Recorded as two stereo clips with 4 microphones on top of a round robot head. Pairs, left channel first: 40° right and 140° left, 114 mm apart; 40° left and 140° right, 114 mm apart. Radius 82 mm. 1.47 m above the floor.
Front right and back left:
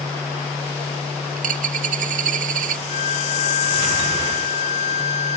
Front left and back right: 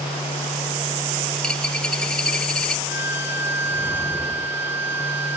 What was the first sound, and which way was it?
A dropped coin, 125° left.